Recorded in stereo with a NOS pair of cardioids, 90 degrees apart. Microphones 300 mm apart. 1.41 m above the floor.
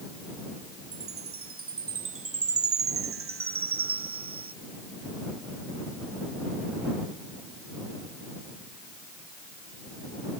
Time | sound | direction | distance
0.9 | a chime | 40° right | ?